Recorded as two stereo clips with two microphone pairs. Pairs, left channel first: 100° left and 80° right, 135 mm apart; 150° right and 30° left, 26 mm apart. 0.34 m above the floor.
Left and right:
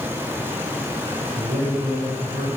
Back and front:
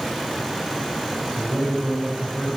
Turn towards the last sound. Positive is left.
turn(degrees=-120)